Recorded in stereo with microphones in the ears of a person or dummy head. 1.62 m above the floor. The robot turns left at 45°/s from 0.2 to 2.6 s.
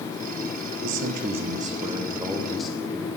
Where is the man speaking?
110° right, 0.6 m; by 3.1 s 170° left, 0.6 m.